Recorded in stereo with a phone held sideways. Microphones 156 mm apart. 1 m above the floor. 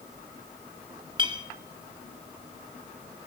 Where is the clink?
30° right (ahead or behind), 1.8 m.